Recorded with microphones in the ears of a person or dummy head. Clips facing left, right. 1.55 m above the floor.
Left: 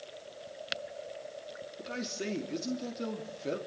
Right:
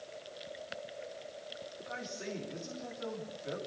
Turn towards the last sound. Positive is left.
turn(degrees=55)  # may be behind; listen again after turning